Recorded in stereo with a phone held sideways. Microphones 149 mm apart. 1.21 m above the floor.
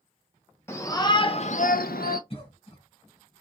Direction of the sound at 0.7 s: 20° left (ahead or behind).